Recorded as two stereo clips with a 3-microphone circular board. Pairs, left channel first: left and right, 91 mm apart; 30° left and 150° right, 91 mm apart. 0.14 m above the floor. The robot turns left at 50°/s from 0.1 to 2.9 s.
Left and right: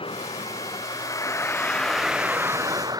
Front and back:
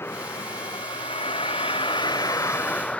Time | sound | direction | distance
0.0 | a vehicle | 95° left | ?